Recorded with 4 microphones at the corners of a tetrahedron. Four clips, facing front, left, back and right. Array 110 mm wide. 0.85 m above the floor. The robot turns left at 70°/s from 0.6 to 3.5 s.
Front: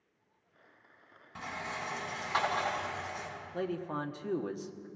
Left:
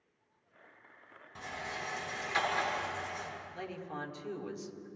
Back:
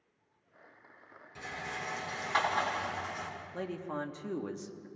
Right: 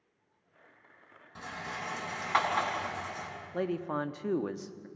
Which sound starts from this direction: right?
A man speaking, at 3.5 s.